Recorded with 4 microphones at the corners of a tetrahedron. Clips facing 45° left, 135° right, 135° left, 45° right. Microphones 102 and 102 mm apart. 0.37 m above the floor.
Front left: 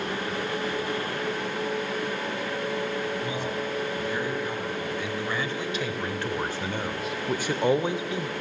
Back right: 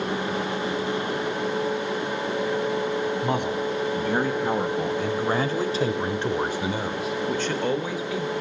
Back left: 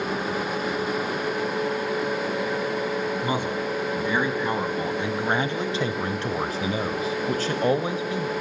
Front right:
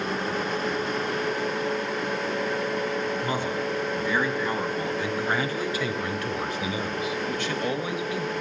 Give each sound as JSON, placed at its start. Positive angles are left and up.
{"t": 3.2, "sound": "a man speaking", "azimuth_deg": -150, "distance_m": 3.0}